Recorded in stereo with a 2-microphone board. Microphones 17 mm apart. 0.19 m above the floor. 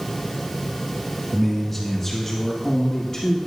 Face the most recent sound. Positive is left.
turn(degrees=25)  # may be behind; listen again after turning